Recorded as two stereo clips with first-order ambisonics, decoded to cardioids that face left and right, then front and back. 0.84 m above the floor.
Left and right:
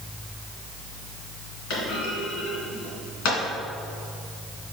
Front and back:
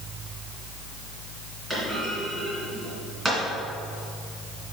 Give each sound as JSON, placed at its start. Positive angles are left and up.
{"t": 1.7, "sound": "a clunk", "azimuth_deg": 95, "distance_m": 2.5}